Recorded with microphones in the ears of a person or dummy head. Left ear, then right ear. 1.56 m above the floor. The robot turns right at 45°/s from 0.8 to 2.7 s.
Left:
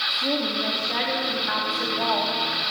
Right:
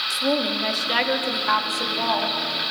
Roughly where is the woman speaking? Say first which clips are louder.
Right 2 dB; ahead right.